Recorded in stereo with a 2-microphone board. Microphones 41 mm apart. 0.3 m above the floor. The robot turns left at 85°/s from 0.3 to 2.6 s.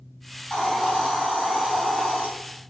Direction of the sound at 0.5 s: 15° left.